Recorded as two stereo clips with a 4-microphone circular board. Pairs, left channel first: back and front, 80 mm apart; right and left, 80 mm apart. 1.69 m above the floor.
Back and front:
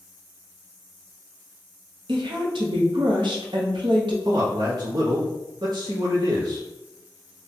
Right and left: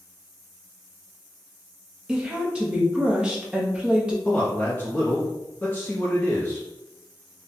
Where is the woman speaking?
10° left, 0.9 m.